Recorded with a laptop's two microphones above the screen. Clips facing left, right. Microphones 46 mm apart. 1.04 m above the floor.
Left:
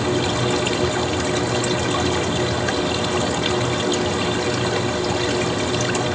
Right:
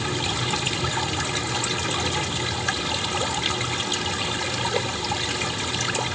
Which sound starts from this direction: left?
A machine running, at 0.0 s.